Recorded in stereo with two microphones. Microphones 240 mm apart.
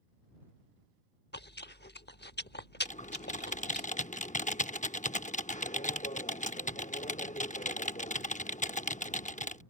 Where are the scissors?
No scissors in this recording.